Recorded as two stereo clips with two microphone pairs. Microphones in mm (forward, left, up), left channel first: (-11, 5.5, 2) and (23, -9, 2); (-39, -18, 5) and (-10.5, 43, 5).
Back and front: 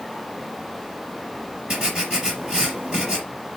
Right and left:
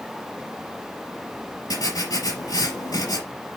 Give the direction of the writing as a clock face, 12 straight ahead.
3 o'clock.